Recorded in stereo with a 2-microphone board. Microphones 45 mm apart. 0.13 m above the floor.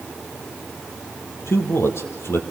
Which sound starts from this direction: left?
A man speaking, at 1.5 s.